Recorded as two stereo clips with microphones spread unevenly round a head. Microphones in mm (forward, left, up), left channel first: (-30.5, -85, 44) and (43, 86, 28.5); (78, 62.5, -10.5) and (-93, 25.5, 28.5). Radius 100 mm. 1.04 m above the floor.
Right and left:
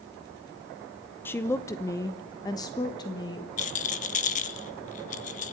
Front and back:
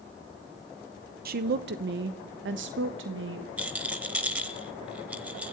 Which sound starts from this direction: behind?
A woman speaking, at 1.2 s.